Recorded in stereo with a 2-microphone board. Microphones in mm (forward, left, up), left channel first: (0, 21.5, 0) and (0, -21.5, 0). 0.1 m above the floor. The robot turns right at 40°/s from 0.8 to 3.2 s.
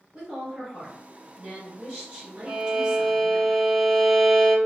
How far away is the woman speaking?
About 1.6 m.